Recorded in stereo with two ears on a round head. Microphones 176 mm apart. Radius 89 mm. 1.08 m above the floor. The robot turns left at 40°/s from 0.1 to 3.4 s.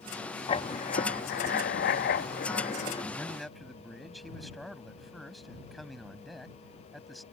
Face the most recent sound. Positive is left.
turn(degrees=0)  # may be behind; listen again after turning